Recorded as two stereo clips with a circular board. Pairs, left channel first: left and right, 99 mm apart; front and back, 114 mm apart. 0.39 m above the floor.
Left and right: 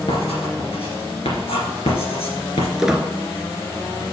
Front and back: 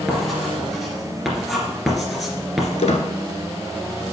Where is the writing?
90° left, 2.5 m.